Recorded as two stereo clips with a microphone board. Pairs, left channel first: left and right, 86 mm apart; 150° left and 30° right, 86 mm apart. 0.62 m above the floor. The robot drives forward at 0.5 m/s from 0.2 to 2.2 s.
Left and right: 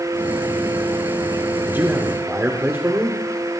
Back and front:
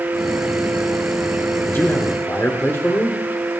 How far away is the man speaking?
About 1.6 m.